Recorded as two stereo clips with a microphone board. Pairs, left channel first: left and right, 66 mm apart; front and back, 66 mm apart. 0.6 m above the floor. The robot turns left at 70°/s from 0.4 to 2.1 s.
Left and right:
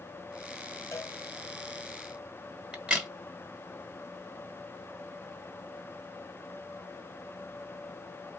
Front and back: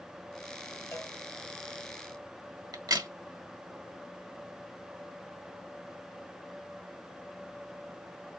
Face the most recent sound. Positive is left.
turn(degrees=-160)